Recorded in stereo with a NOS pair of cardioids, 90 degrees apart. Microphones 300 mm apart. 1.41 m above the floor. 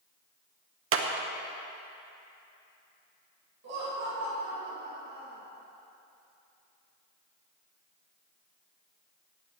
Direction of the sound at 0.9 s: 50° right.